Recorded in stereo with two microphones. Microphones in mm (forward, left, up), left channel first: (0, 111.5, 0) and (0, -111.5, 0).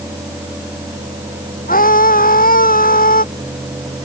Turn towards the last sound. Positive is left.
turn(degrees=40)  # may be behind; listen again after turning